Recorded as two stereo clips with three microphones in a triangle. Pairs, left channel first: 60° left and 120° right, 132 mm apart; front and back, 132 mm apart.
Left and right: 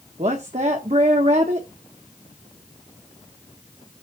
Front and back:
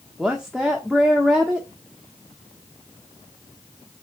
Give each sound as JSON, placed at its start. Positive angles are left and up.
{"t": 0.2, "sound": "a woman speaking", "azimuth_deg": -95, "distance_m": 1.3}